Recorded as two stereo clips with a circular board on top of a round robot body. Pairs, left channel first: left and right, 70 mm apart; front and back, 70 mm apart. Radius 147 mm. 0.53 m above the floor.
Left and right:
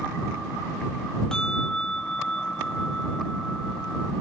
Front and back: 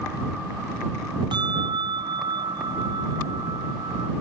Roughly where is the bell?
Behind.